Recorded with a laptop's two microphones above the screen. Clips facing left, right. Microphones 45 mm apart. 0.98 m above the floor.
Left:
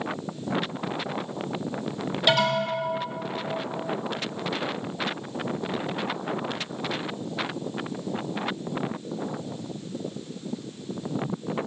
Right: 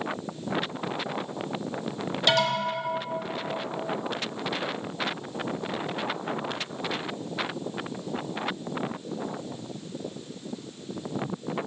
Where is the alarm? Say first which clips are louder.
Left 2 dB; 10° left (ahead or behind), 0.9 m.